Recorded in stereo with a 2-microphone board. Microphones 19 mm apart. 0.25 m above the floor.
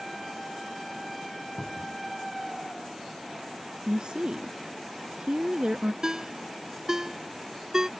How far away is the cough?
I don't hear a cough.